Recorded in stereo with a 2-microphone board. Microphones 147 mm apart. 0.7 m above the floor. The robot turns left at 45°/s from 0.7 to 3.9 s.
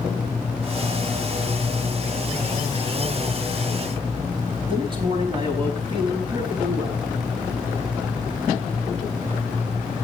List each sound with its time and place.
4.7 s a man speaking: 35° right (ahead or behind), 5 m